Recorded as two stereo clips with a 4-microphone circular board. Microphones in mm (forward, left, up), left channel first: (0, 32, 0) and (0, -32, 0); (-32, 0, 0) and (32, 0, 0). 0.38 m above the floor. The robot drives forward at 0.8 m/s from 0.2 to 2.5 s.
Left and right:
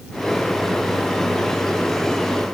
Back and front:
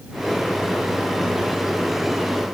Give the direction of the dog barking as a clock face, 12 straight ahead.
No dog barking in this recording.